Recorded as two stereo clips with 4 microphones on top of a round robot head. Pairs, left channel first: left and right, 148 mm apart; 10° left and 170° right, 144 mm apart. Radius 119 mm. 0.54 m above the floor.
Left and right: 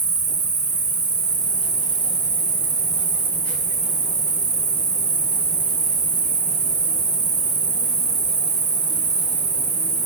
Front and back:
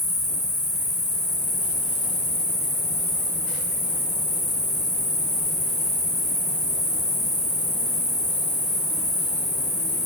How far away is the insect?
About 0.9 m.